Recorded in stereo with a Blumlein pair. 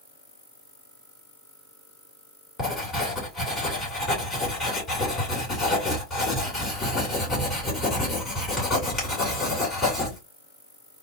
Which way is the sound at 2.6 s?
20° left.